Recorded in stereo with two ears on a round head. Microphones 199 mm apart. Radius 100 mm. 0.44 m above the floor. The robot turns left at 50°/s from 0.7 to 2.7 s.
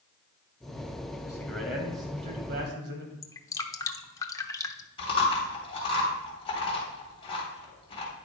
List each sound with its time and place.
1.2 s a man speaking: 20° left, 2.5 m; by 3.1 s 55° right, 2.5 m
3.2 s dripping: 15° left (ahead or behind), 0.7 m
5.0 s chewing: 25° left (ahead or behind), 3.5 m